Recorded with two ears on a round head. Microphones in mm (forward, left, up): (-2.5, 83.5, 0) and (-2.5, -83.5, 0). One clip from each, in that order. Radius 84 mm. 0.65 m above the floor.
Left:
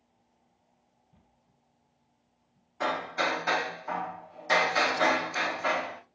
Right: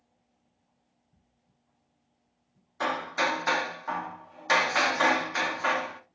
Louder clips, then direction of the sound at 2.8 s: Right 1 dB; 35° right (ahead or behind).